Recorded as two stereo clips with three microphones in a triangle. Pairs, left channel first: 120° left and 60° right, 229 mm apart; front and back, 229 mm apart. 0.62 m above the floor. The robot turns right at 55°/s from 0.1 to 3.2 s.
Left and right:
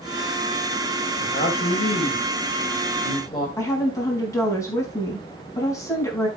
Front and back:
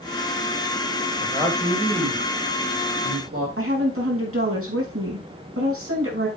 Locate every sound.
1.2 s a man speaking: 75° left, 3.5 m; by 3.5 s 175° right, 3.5 m
3.6 s a woman speaking: 165° right, 5 m